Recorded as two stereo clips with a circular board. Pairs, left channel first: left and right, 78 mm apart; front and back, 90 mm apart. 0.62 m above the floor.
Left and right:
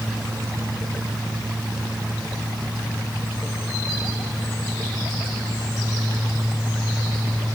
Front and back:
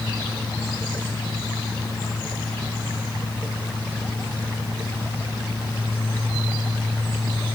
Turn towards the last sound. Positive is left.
No sound to turn to.